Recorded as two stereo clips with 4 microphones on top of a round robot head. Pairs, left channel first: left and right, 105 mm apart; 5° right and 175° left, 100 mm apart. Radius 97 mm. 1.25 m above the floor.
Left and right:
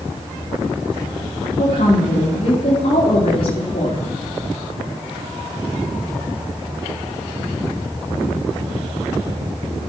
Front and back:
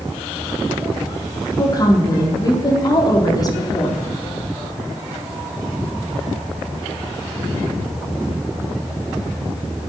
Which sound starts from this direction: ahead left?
A woman speaking, at 1.6 s.